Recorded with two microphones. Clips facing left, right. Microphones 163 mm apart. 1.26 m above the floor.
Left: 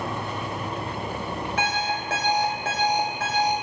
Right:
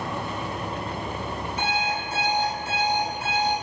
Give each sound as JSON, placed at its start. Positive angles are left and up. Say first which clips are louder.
{"t": 1.6, "sound": "an alarm clock", "louder": "right 1 dB", "side_deg": 80, "distance_m": 3.0}